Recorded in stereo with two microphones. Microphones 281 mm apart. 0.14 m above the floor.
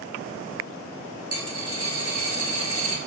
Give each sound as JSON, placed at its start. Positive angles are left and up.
{"t": 1.3, "sound": "a dropped coin", "side_deg": 65, "distance_m": 1.0}